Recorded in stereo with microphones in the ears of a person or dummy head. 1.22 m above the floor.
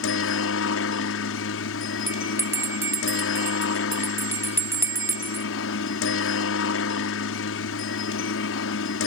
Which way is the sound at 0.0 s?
65° left (ahead or behind).